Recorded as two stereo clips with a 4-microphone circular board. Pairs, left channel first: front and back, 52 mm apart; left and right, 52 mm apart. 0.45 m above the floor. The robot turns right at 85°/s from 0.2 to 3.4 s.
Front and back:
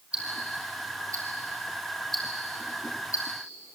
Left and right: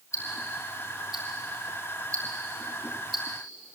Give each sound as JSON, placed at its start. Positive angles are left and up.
{"t": 0.1, "sound": "ticking", "azimuth_deg": 110, "distance_m": 7.0}